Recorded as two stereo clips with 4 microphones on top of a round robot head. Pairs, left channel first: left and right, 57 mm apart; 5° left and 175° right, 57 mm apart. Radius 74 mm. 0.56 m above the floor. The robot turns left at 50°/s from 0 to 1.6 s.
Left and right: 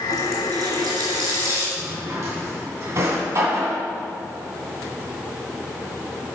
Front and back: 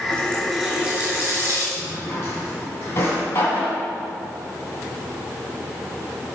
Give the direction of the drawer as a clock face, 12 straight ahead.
2 o'clock.